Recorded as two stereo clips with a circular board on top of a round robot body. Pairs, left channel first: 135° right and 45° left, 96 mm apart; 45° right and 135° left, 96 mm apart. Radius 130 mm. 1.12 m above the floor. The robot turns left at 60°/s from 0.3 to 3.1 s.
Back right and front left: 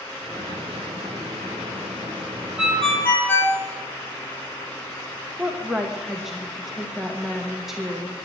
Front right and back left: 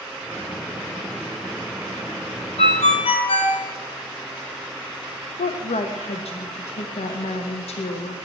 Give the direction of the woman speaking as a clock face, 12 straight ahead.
1 o'clock.